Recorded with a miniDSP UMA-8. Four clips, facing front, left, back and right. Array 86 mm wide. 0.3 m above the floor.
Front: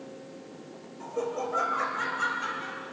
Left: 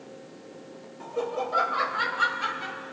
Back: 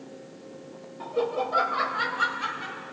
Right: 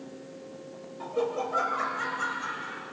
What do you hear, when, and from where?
1.0 s laughter: 160° right, 1.1 m; by 2.8 s 115° left, 1.6 m